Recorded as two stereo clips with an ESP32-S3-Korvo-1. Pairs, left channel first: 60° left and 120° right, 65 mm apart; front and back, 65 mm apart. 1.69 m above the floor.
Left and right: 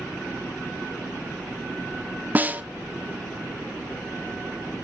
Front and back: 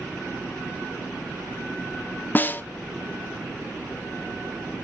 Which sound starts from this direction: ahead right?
A snare drum, at 2.4 s.